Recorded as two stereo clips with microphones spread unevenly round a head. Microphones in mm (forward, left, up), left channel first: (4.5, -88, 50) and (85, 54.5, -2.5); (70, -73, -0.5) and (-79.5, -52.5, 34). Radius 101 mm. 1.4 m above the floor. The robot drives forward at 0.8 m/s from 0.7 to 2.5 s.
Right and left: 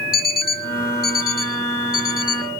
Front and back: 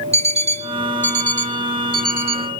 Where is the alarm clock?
150° right; by 2.5 s 165° right.